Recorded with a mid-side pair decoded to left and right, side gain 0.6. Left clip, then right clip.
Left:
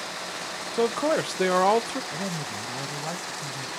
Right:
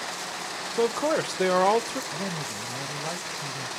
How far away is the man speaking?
About 0.5 m.